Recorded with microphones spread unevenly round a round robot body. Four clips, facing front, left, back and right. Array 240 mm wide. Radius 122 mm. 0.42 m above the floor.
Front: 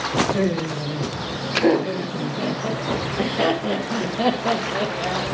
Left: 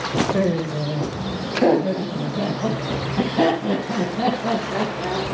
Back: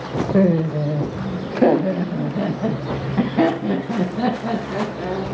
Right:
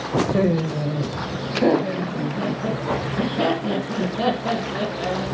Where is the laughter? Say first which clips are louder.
Right 1 dB, back 5 dB; 170° right, 1.5 m; by 5.2 s 155° left, 4.5 m.